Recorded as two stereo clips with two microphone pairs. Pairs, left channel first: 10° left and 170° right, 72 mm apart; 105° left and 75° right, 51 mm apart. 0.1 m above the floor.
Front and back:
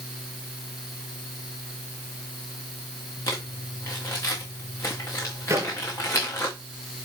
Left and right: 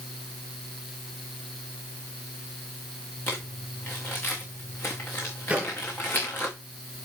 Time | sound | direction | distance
3.3 | crumpling | 60° left | 4 m
5.5 | a microwave | 140° right | 1.6 m